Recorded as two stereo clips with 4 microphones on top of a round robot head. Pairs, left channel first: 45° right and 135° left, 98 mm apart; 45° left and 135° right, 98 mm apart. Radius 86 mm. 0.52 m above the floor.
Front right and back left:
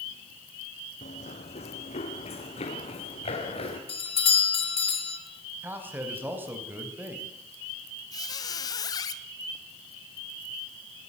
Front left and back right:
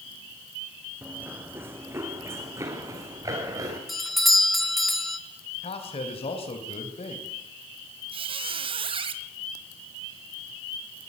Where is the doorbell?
45° right, 3.5 m.